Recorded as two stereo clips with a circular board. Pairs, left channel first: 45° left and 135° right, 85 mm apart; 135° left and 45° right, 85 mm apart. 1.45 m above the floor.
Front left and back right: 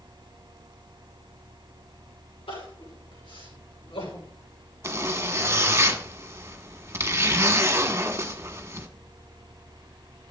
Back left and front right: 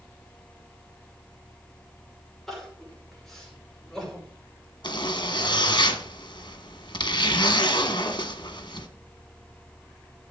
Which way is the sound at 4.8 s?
165° left.